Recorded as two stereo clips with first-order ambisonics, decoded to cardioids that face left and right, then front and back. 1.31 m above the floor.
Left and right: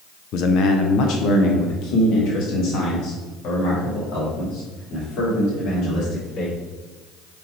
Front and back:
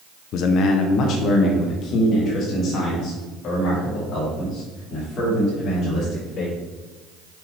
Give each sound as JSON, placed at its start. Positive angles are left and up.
{"t": 0.3, "sound": "a man speaking", "azimuth_deg": 45, "distance_m": 0.5}